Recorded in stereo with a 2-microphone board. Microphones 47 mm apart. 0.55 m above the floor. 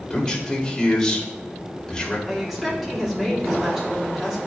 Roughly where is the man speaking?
Centre.